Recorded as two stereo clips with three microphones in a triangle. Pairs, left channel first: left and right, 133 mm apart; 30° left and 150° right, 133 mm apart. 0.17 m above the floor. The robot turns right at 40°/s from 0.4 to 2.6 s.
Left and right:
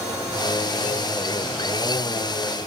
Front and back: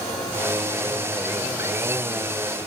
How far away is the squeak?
I don't hear a squeak.